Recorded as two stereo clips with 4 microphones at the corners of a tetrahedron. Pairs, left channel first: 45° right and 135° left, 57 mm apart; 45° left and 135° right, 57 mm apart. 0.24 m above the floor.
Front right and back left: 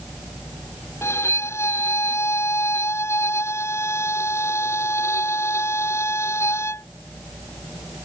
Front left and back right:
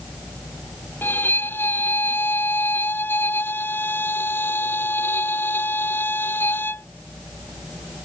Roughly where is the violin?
Ahead.